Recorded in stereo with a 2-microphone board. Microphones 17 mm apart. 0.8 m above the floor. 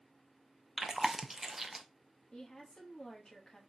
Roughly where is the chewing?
Centre.